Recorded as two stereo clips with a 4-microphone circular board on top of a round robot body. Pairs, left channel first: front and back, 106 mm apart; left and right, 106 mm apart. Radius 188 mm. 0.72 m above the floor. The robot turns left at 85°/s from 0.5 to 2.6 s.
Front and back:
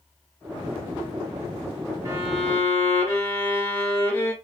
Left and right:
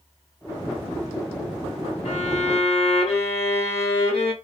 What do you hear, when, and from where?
2.0 s a violin: 115° left, 0.8 m; by 4.3 s 65° left, 0.8 m